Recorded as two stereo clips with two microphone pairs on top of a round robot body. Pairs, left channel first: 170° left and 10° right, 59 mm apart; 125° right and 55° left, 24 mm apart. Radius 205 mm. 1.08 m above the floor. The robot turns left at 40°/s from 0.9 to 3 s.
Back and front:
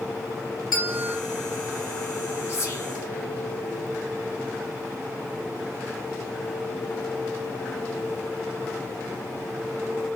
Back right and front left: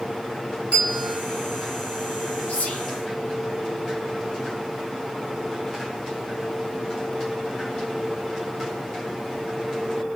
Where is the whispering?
140° right, 1.7 m; by 2.9 s 155° right, 1.7 m.